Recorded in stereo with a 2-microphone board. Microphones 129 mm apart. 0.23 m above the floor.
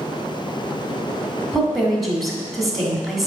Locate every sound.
1.5 s a woman speaking: centre (ahead or behind), 1.5 m